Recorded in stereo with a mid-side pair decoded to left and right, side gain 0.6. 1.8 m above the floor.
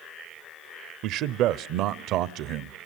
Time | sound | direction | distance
1.0 | a man speaking | 65° right | 1.0 m